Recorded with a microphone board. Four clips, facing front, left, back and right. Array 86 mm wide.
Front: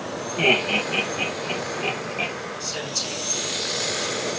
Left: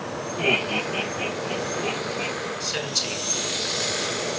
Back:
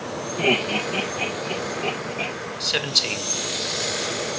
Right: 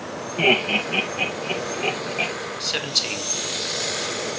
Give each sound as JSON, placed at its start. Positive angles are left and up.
{"t": 0.4, "sound": "laughter", "azimuth_deg": -55, "distance_m": 3.5}
{"t": 2.6, "sound": "a man speaking", "azimuth_deg": -150, "distance_m": 1.4}